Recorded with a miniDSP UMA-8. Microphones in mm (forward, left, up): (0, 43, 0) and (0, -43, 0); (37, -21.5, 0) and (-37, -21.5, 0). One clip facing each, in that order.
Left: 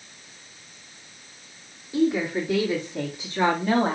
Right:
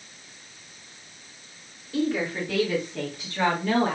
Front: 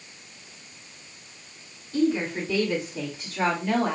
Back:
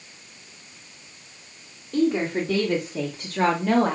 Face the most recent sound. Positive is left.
turn(degrees=150)